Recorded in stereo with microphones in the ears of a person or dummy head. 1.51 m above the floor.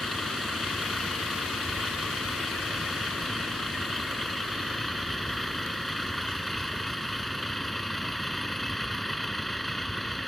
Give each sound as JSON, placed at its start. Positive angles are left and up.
{"t": 0.0, "sound": "a vehicle", "side_deg": 0}